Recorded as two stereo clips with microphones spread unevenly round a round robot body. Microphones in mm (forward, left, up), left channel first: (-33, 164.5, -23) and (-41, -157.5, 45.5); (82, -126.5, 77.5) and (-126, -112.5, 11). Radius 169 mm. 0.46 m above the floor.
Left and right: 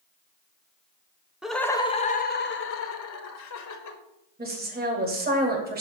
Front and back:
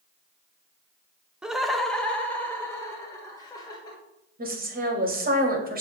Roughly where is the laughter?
Behind left.